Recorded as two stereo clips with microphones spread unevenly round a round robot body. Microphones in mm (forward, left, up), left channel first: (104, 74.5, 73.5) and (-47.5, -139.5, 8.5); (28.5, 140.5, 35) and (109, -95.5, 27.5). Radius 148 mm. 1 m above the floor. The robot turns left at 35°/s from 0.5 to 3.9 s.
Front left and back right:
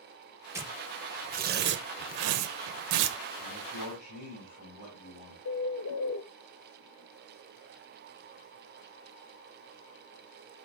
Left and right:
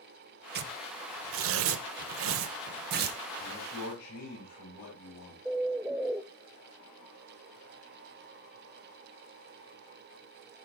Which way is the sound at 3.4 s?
115° left.